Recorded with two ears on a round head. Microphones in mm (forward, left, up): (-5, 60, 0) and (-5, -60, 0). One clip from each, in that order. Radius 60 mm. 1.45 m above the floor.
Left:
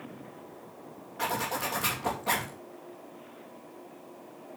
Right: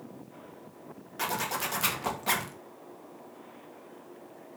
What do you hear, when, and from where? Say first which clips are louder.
1.2 s a zipper: left 1 dB; 85° right, 2.5 m